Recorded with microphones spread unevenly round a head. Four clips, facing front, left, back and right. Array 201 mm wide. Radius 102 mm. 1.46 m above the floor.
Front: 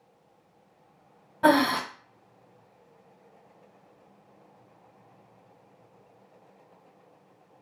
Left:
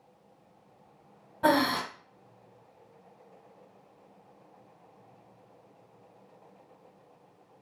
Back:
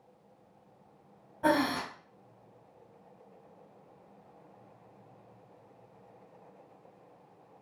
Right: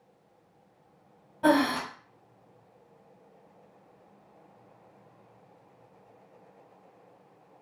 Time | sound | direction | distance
1.4 | breathing | 10° right | 0.6 m